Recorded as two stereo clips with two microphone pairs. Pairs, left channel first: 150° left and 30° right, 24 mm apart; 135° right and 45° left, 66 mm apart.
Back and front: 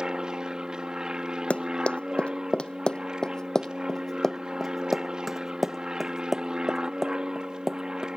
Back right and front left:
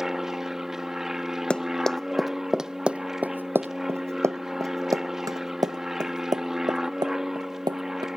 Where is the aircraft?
35° right.